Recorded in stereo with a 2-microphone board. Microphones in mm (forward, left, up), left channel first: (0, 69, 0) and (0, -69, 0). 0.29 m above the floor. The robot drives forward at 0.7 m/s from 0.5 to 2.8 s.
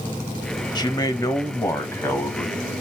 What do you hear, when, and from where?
0.8 s a man speaking: 30° left (ahead or behind), 0.9 m; by 2.6 s 15° left (ahead or behind), 1.7 m